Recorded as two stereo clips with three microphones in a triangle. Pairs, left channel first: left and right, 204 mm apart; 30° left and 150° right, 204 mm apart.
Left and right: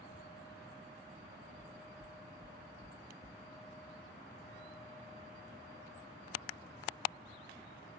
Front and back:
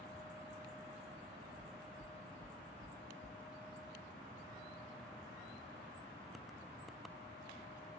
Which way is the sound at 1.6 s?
140° right.